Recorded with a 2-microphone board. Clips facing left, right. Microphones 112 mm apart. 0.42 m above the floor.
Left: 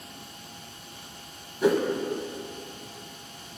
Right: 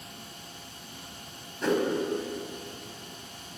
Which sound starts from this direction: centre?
A whoosh, at 1.6 s.